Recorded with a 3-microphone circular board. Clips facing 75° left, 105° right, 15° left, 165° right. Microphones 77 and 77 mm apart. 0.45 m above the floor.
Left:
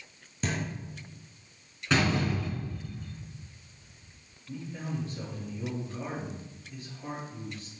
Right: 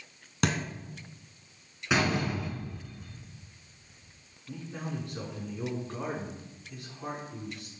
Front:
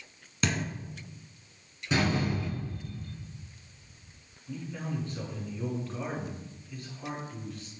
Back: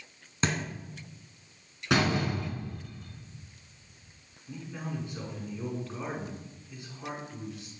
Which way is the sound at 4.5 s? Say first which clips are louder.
Left 1 dB, front 2 dB; 90° right.